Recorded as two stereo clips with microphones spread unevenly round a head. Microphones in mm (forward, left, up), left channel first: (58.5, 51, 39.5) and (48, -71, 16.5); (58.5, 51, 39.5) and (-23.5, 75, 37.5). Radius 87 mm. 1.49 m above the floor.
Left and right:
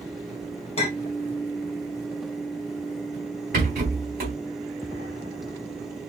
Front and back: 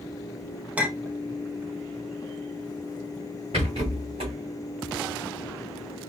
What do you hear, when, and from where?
0.8 s a clink: 95° left, 1.0 m
3.5 s a rattle: 135° right, 2.5 m